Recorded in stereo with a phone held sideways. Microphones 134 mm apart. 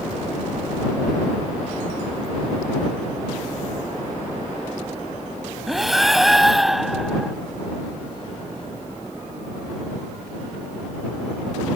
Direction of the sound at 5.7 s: Centre (ahead or behind).